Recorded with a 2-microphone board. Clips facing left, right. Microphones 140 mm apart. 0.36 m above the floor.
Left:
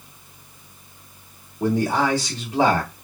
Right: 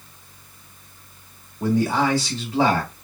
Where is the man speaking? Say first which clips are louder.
Even; 20° left (ahead or behind), 1.6 m.